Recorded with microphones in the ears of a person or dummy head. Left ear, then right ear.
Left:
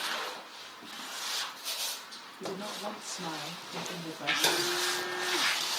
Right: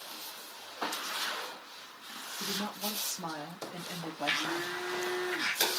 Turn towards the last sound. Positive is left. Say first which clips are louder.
# left 5 dB
turn(degrees=-10)  # may be behind; listen again after turning